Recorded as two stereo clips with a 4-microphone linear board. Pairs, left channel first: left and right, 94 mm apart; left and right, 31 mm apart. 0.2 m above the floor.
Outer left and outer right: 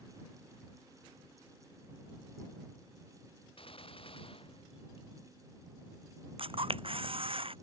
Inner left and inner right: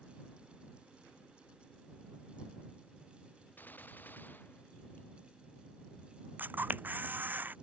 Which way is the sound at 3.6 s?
75° left (ahead or behind).